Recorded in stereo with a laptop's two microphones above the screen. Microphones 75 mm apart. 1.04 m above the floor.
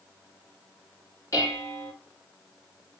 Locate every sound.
1.3 s dishes clattering: 40° left (ahead or behind), 1.1 m